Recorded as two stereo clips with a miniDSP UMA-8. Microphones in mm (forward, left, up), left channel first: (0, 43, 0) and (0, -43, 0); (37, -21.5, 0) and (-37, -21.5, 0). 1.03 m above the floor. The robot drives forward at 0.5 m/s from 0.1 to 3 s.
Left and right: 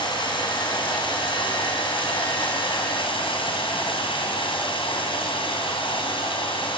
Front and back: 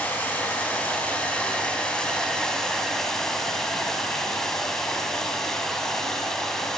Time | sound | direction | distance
0.0 | running water | 65° left | 4.5 m